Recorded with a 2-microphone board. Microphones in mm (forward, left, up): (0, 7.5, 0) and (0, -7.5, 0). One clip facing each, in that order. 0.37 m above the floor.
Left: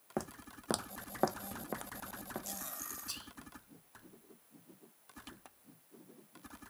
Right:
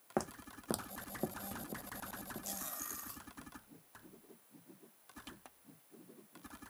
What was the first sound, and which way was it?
Footsteps, 15° right (ahead or behind).